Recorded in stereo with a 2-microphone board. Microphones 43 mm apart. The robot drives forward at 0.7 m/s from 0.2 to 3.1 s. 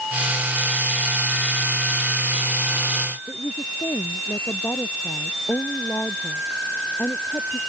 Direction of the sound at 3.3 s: 70° left (ahead or behind).